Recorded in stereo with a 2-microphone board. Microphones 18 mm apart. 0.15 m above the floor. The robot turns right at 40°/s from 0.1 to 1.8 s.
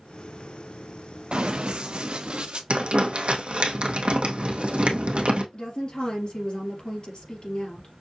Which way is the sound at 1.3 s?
70° right (ahead or behind).